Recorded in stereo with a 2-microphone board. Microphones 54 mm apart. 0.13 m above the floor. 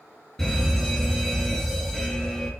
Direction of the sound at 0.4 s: 5° left (ahead or behind).